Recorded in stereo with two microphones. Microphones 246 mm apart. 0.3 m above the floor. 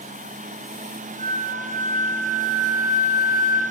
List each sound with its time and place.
1.2 s a flute: 35° right (ahead or behind), 2.5 m